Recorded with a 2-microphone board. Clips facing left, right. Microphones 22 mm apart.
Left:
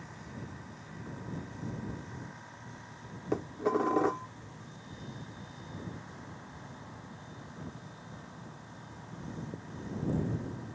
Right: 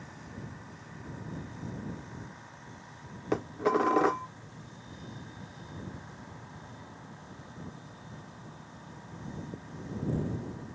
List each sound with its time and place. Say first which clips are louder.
3.3 s dishes clattering: right 3 dB; 35° right (ahead or behind)